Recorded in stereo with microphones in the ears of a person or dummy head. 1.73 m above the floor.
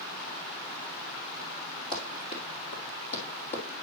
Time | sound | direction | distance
1.9 | running footsteps | 25° left (ahead or behind) | 2.5 m